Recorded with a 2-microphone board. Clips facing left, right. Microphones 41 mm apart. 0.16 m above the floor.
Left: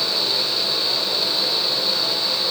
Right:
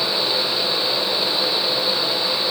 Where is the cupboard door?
No cupboard door in this recording.